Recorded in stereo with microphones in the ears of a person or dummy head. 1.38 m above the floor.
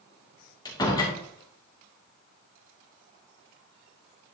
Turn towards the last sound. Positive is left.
turn(degrees=20)  # may be behind; listen again after turning